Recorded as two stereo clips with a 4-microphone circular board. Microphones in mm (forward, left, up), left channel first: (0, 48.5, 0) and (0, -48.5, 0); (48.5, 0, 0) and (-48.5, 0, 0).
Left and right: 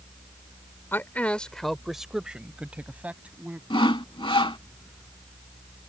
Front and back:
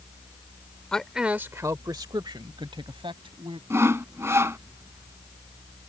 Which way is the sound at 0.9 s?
70° left.